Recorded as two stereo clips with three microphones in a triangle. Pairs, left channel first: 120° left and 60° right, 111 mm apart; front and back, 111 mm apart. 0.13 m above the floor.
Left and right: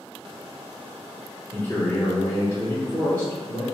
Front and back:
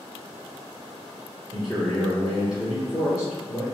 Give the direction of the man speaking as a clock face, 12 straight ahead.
9 o'clock.